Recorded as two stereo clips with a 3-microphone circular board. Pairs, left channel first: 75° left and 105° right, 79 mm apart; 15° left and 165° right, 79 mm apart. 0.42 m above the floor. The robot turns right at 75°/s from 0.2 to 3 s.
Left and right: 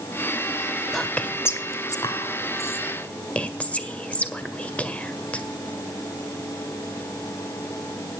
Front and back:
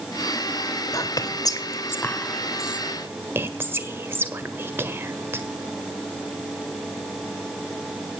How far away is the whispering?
About 1.7 m.